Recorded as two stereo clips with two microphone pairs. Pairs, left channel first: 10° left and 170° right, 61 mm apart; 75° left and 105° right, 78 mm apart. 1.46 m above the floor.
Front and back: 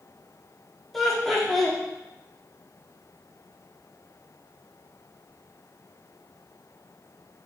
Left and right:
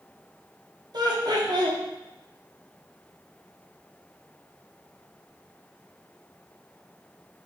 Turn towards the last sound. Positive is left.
turn(degrees=-75)